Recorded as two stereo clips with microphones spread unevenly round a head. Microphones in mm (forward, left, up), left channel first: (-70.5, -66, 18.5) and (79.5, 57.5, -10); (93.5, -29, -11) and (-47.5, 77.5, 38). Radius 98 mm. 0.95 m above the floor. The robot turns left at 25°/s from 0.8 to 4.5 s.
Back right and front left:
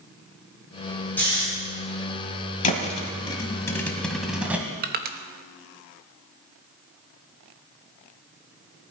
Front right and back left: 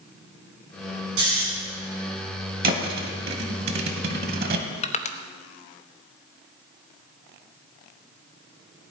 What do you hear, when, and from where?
1.2 s snoring: 140° left, 7 m; by 1.4 s 130° left, 7 m
2.6 s a thud: 175° left, 1.5 m; by 4.6 s 125° left, 1.5 m
4.8 s crushing: 5° left, 1.0 m